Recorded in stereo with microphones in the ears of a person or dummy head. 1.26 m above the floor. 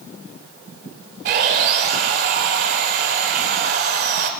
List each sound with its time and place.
1.2 s sawing: 45° right (ahead or behind), 1.3 m